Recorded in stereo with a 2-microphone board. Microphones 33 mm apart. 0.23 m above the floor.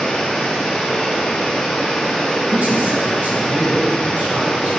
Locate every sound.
0.0 s running water: 20° left (ahead or behind), 2.5 m
2.5 s a man speaking: 60° right (ahead or behind), 2.5 m